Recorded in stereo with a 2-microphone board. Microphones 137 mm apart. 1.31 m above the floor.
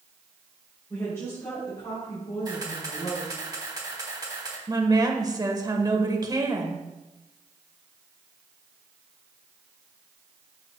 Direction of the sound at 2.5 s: 30° right (ahead or behind).